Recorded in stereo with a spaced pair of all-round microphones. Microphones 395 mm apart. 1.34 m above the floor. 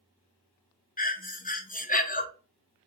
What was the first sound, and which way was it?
Breathing, 20° left (ahead or behind).